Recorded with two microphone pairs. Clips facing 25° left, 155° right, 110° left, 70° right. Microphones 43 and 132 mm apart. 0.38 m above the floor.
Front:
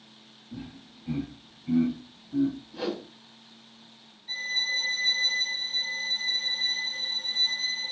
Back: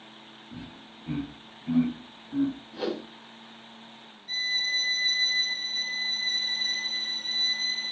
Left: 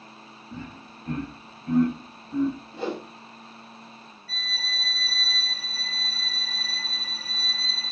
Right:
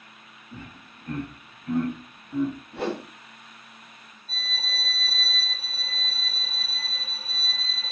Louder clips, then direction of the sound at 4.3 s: Back 1 dB, right 1 dB; 50° right.